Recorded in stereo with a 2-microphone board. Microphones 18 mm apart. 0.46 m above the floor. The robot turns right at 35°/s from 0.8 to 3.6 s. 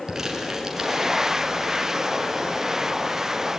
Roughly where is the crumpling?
Right.